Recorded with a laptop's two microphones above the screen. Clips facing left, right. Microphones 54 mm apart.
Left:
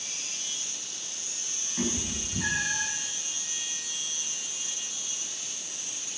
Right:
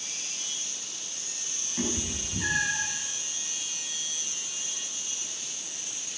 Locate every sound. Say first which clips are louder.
1.8 s a cat meowing: even; centre (ahead or behind), 3.5 m